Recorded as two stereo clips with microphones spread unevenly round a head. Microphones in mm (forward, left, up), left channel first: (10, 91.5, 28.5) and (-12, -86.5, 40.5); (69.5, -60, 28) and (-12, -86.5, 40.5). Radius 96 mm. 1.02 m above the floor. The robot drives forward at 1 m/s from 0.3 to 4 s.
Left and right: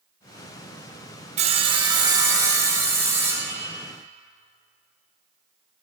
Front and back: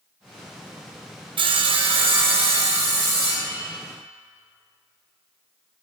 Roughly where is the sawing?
Behind right.